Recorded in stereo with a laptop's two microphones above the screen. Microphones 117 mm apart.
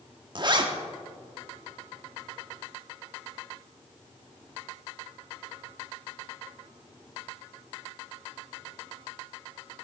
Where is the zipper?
40° right (ahead or behind), 1.2 m.